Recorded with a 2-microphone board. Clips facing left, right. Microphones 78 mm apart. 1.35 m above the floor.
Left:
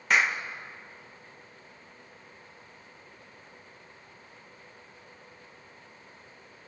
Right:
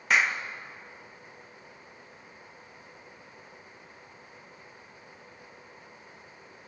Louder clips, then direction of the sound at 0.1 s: Even; centre (ahead or behind).